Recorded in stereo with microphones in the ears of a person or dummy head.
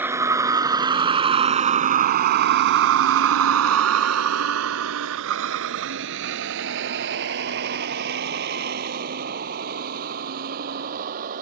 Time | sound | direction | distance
0.0 | a vehicle | 10° right (ahead or behind) | ?